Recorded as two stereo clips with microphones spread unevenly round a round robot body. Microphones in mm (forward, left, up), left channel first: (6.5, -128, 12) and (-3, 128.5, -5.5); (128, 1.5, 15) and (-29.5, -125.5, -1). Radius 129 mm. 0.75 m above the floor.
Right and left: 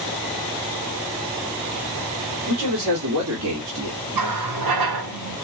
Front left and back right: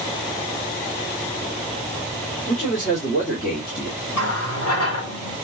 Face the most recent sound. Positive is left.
turn(degrees=75)